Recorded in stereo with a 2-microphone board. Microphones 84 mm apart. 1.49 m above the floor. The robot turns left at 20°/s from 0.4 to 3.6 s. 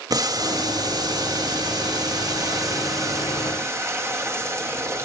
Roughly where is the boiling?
Right.